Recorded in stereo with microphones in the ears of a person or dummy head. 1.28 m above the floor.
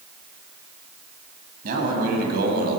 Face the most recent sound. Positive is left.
turn(degrees=-55)  # may be behind; listen again after turning